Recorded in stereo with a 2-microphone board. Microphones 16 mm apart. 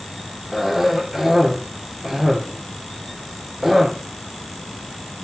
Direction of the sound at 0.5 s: 20° right (ahead or behind).